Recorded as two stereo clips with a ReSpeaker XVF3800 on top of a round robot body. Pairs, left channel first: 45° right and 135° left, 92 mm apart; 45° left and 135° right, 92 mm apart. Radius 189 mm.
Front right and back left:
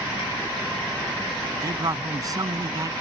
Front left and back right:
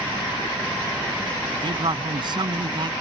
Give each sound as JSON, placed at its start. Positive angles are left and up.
{"t": 1.6, "sound": "a man speaking", "azimuth_deg": -175}